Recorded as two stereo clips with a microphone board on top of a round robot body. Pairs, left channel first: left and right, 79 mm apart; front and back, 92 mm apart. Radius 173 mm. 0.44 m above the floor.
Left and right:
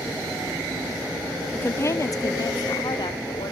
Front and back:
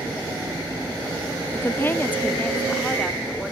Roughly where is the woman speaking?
Ahead left.